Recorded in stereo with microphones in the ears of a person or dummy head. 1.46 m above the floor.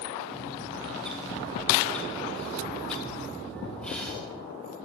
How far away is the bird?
About 3 m.